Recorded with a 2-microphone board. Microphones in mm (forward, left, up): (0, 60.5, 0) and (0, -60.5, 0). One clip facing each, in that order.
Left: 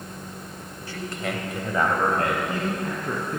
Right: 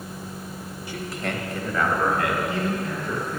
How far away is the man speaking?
About 1.4 m.